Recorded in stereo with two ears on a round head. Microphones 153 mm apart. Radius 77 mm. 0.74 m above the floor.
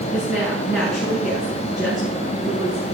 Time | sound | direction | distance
0.1 | a woman speaking | 5° right (ahead or behind) | 7 m